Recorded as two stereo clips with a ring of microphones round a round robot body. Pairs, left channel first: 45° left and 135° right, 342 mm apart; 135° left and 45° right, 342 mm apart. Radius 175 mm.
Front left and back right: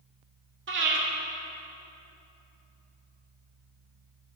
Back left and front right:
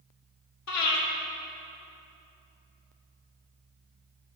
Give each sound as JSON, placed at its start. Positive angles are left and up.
{"t": 0.7, "sound": "breathing", "azimuth_deg": 170, "distance_m": 2.0}